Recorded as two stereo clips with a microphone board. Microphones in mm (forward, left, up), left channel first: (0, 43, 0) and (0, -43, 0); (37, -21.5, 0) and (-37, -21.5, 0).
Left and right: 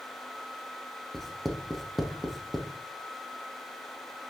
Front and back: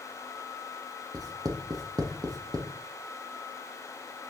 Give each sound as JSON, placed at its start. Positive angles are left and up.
{"t": 1.1, "sound": "writing", "azimuth_deg": 180, "distance_m": 0.9}